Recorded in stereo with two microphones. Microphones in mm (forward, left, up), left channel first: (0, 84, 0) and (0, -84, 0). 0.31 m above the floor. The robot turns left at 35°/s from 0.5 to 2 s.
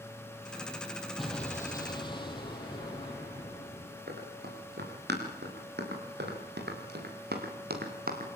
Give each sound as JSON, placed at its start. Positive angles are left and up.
{"t": 1.2, "sound": "an explosion", "side_deg": 0, "distance_m": 4.5}
{"t": 4.1, "sound": "running footsteps", "side_deg": -75, "distance_m": 8.5}